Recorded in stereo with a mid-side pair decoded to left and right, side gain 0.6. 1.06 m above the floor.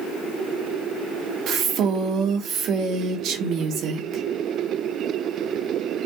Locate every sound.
1.5 s a woman speaking: 60° right, 0.6 m